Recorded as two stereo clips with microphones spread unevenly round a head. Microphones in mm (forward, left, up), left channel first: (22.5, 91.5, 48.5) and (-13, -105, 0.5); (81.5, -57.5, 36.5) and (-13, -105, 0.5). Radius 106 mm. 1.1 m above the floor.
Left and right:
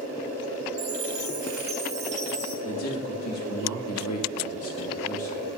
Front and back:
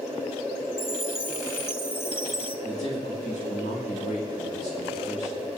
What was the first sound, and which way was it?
A chime, 45° right.